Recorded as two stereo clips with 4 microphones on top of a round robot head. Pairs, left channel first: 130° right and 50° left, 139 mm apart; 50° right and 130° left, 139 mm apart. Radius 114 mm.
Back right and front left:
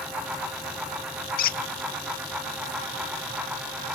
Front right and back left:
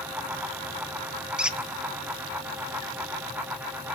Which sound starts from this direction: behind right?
A squeak, at 1.4 s.